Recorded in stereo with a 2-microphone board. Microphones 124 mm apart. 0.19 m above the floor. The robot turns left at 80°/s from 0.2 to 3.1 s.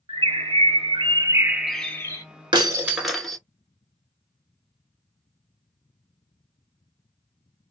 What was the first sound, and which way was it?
A bird, 55° right.